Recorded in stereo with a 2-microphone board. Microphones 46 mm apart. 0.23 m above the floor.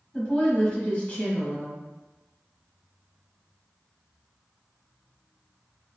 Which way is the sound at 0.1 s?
25° left (ahead or behind).